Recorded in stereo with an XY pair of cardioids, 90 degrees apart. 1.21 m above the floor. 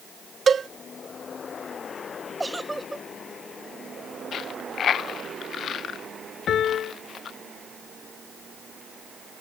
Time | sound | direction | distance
0.5 | a cowbell | 45° right | ?
2.4 | a giggle | 10° right | ?
4.3 | a dropped coin | 65° left | ?
6.5 | a piano | 70° left | ?